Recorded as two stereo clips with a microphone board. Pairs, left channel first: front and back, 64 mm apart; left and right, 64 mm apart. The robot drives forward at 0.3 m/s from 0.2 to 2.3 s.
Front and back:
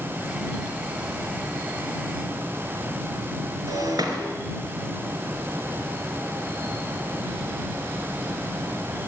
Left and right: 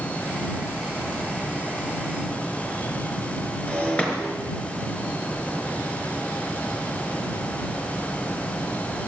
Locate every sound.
3.7 s breaking glass: 160° left, 3.5 m